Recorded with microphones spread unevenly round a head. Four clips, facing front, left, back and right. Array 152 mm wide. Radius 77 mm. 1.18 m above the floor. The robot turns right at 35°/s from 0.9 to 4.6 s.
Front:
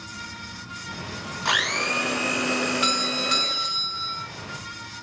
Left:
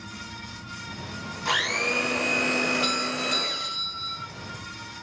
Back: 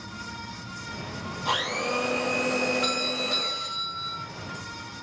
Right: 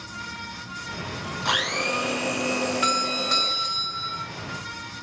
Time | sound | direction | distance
1.4 | a blender | 25° right | 2.5 m
2.8 | a doorbell | 50° right | 1.6 m